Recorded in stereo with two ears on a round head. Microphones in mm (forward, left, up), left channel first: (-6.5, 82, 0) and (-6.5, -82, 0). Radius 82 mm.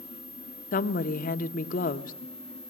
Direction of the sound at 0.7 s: 45° left (ahead or behind).